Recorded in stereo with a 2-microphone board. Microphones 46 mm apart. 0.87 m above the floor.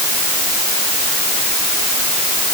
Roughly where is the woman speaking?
I don't hear a woman speaking.